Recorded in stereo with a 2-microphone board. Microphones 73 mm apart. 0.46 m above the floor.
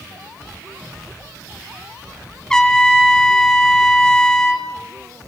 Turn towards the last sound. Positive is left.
turn(degrees=10)  # may be behind; listen again after turning